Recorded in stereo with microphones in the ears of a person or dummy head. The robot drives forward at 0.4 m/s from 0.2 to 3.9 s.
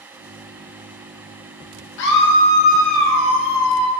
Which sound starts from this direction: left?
A scream, at 2.0 s.